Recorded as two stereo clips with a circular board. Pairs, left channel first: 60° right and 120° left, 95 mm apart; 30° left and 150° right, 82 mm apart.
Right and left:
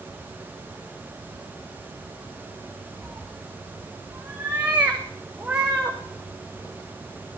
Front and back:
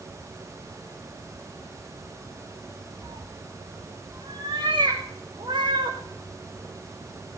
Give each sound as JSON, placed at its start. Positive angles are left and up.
{"t": 3.0, "sound": "a cat meowing", "azimuth_deg": -165, "distance_m": 5.5}